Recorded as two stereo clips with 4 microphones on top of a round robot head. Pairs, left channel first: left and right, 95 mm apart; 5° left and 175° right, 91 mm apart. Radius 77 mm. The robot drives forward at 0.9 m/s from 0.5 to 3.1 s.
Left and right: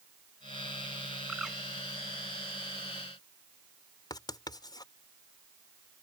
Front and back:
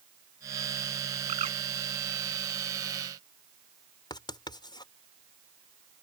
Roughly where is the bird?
Behind.